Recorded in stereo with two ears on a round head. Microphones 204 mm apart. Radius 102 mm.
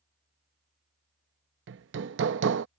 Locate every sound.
1.7 s hammering: 55° right (ahead or behind)